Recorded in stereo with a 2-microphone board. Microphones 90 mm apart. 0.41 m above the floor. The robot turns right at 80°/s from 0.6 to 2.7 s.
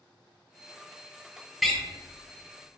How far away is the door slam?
About 0.6 m.